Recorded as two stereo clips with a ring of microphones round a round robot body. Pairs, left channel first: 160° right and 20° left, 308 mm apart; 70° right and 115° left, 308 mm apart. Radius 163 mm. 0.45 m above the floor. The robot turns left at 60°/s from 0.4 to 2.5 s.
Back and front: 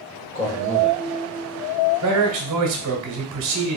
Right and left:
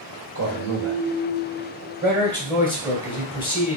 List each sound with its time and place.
0.3 s a man speaking: 140° left, 1.3 m; by 1.0 s 105° left, 1.3 m
2.0 s a man speaking: 55° left, 1.8 m; by 3.8 s 25° left, 1.8 m